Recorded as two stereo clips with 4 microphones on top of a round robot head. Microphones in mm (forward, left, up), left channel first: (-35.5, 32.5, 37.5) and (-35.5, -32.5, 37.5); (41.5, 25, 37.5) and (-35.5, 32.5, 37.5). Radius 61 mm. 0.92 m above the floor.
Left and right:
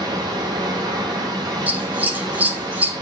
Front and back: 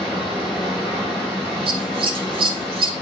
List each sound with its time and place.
0.0 s running water: 90° right, 3 m
1.7 s scissors: 155° right, 1.9 m